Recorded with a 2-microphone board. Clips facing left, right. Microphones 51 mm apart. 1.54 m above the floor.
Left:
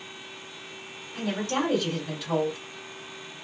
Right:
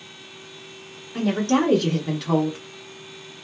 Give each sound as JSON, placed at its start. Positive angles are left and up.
{"t": 1.1, "sound": "a woman speaking", "side_deg": -65, "distance_m": 1.1}